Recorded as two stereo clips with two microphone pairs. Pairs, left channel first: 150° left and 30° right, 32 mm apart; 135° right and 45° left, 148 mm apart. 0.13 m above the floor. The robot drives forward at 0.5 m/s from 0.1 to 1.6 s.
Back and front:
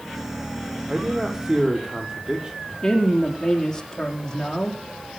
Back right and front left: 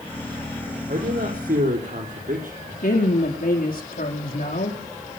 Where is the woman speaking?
135° right, 5 m.